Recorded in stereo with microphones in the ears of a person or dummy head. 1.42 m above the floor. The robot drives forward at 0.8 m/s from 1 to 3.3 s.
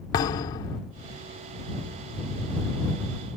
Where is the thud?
20° left (ahead or behind).